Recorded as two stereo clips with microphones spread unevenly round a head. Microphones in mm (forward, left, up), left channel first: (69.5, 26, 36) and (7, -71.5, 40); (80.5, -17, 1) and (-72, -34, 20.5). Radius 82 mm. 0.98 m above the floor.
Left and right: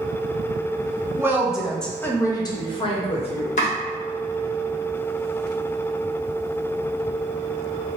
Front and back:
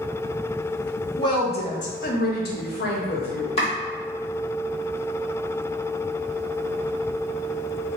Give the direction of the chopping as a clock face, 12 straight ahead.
10 o'clock.